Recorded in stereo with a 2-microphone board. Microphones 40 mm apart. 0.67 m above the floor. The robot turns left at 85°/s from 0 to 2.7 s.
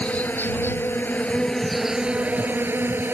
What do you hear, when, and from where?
0.0 s an insect: 145° left; by 3.1 s 80° right